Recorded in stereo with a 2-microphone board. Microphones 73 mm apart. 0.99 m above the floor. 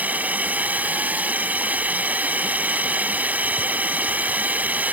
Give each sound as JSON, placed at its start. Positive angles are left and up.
{"t": 0.0, "sound": "a drone", "side_deg": -20}